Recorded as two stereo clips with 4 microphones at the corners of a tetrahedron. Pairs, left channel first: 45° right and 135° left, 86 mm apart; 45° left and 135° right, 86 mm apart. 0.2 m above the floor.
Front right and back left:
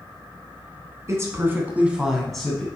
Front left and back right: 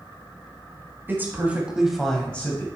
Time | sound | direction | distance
1.1 | a woman speaking | 170° left | 1.6 m